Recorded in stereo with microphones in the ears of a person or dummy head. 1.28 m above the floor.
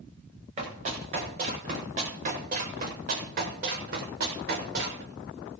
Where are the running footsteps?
40° right (ahead or behind), 8.5 m; by 5.0 s 65° right (ahead or behind), 6 m.